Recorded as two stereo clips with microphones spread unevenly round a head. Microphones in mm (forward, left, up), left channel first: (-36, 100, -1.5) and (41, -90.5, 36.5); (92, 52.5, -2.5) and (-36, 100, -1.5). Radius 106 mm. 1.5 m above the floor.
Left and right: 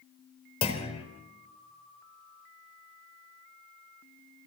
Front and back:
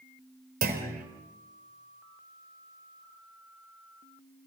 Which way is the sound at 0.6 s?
Straight behind.